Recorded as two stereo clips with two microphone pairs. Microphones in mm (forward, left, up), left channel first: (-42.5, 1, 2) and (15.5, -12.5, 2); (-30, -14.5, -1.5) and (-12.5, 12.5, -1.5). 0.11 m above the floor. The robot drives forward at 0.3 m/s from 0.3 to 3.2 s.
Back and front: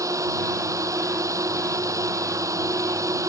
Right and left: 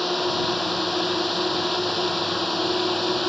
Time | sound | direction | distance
0.0 | a drone | 35° right | ?